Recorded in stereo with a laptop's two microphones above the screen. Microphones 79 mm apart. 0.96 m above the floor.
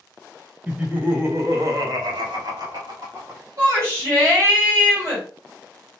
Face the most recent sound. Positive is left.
turn(degrees=-50)  # may be behind; listen again after turning